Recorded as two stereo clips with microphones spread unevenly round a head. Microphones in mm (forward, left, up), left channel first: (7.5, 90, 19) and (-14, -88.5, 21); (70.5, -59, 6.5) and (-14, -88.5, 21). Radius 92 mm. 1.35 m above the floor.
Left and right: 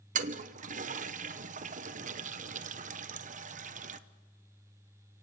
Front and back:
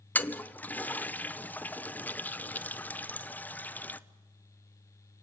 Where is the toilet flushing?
50° right, 0.9 m.